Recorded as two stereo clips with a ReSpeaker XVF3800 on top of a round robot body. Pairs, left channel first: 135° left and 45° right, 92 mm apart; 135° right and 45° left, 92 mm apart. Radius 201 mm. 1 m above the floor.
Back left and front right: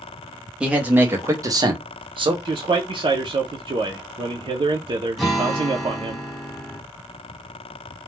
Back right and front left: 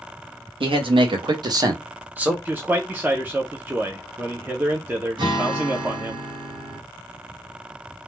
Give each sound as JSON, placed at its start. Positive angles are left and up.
{"t": 0.6, "sound": "a man speaking", "azimuth_deg": 35, "distance_m": 1.0}
{"t": 2.5, "sound": "a man speaking", "azimuth_deg": -25, "distance_m": 0.5}
{"t": 5.2, "sound": "a guitar", "azimuth_deg": 45, "distance_m": 1.5}